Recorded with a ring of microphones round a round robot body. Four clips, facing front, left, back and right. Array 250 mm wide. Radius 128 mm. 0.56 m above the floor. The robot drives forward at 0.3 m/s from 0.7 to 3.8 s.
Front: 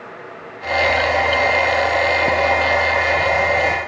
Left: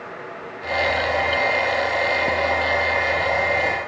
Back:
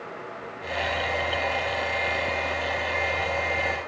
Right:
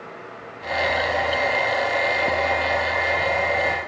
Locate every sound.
Only background noise.